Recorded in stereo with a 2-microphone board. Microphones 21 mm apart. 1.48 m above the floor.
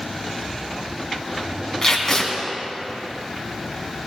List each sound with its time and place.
1.8 s tape being pulled: 15° left (ahead or behind), 3 m